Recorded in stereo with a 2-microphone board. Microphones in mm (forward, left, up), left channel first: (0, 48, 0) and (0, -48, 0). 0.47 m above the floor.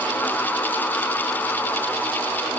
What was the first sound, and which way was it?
Only background noise.